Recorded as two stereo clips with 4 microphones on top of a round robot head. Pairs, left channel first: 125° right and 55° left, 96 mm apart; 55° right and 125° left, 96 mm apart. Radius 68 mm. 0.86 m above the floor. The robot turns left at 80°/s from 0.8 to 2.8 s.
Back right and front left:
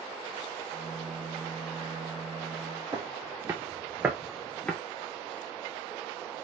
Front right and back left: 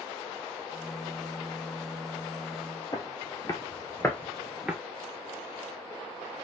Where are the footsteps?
5° right, 1.2 m; by 4.8 s 175° right, 0.8 m.